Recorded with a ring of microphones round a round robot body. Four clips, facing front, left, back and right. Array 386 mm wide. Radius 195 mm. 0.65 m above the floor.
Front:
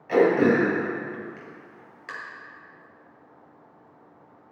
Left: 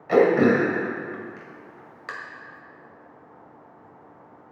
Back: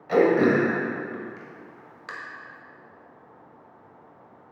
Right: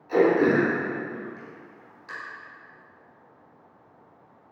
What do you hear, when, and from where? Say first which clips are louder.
0.1 s throat clearing: left 2 dB, even; 100° left, 1.8 m